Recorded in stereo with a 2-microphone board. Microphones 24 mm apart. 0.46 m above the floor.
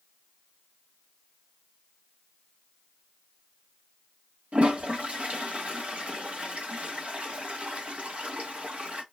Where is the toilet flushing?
70° right (ahead or behind), 1.0 m.